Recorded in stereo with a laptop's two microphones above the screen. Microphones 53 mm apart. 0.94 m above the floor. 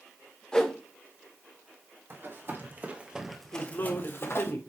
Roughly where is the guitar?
No guitar in this recording.